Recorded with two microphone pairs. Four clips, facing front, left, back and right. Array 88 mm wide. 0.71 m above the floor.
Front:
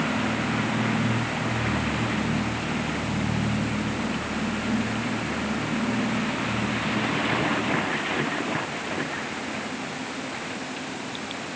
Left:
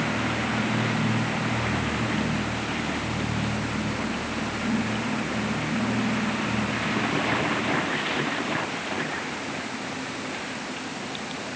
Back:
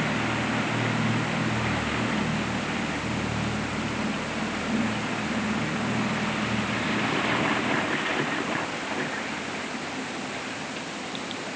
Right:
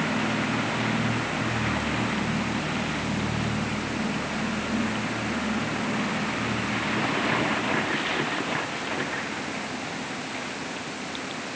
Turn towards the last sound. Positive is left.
No sound to turn to.